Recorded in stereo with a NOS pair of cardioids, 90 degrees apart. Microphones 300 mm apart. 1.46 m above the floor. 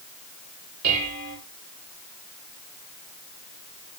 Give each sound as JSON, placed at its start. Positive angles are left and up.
{"t": 0.8, "sound": "dishes clattering", "azimuth_deg": -60, "distance_m": 4.0}